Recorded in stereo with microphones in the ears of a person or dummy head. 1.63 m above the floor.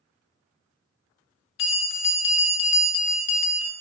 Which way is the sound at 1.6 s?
65° left (ahead or behind).